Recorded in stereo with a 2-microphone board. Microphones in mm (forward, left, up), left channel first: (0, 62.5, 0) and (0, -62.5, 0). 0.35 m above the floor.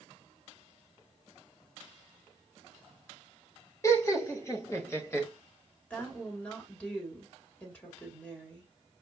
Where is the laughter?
25° left (ahead or behind), 1.0 m; by 5.3 s 20° left (ahead or behind), 1.4 m.